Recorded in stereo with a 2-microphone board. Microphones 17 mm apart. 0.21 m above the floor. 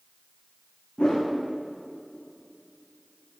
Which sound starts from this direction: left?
A whoosh, at 1.0 s.